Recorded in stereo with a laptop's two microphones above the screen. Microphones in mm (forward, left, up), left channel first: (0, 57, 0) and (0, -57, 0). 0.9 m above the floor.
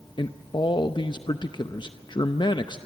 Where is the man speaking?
45° left (ahead or behind), 0.7 m.